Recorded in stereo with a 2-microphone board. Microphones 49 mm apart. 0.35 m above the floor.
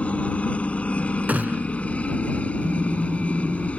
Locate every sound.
0.0 s a helicopter: 25° left (ahead or behind)
1.3 s a gunshot: 35° right (ahead or behind)
2.6 s a car horn: 35° right (ahead or behind)